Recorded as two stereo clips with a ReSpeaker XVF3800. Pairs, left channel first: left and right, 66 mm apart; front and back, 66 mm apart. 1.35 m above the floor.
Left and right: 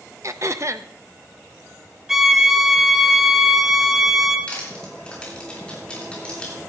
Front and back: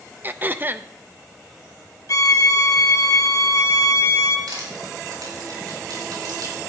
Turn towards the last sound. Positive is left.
turn(degrees=165)